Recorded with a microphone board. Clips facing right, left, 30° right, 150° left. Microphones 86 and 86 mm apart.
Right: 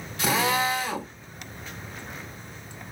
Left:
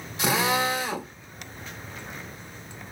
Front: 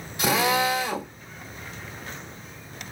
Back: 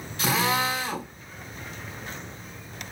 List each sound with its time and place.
0.2 s a drill: 30° left, 1.6 m